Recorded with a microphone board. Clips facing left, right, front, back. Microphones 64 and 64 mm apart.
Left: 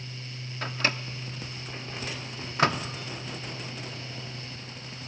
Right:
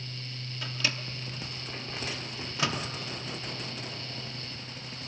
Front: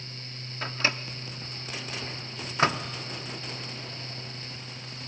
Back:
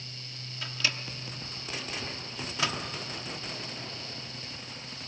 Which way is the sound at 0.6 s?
50° left.